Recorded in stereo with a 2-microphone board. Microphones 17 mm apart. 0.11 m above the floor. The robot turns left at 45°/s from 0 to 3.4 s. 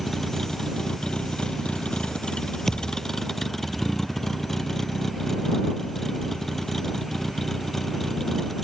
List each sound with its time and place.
0.0 s a vehicle: 170° left; by 8.7 s 15° left
2.7 s a thud: 15° left (ahead or behind); by 3.0 s 30° left (ahead or behind)